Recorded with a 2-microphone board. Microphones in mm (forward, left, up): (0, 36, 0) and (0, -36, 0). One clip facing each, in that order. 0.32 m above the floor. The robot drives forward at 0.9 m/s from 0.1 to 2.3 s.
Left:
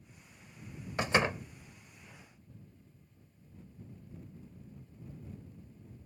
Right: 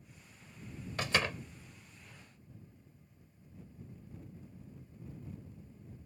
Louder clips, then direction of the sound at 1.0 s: Left 4 dB; 20° left (ahead or behind).